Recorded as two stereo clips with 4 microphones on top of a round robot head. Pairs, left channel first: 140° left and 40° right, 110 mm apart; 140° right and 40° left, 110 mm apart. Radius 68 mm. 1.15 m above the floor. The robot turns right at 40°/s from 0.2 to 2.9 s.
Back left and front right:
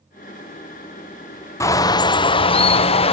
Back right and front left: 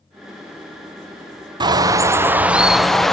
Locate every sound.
1.6 s a bird: 80° left, 0.9 m; by 3.1 s 135° left, 0.9 m